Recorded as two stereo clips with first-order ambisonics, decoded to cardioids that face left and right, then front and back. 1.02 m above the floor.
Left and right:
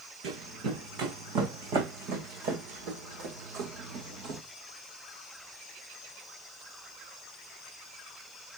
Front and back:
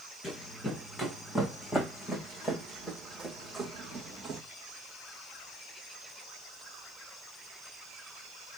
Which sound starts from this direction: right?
Running footsteps, at 0.2 s.